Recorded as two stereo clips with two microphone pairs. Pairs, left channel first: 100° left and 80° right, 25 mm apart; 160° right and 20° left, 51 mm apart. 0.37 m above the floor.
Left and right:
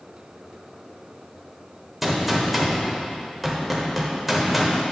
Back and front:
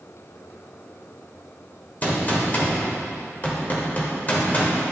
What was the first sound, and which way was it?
A gunshot, 165° right.